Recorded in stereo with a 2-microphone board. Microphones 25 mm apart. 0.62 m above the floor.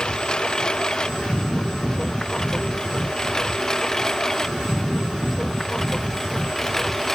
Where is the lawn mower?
35° left (ahead or behind); by 7.2 s 15° left (ahead or behind).